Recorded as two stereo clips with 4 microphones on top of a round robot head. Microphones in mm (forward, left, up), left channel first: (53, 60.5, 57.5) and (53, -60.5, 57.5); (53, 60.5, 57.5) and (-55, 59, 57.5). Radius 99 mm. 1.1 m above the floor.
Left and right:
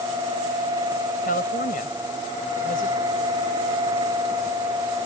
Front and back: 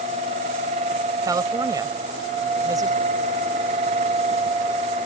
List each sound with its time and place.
1.2 s a woman speaking: 125° left